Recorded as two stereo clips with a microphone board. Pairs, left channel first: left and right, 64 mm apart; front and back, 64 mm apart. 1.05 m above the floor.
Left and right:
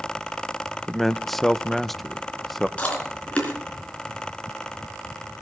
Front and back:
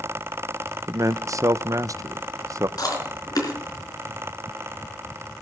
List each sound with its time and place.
0.9 s a man speaking: 175° left, 0.5 m
2.8 s chewing: 20° left, 4 m